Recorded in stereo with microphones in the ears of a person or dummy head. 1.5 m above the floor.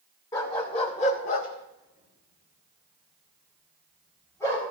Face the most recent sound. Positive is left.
turn(degrees=10)  # may be behind; listen again after turning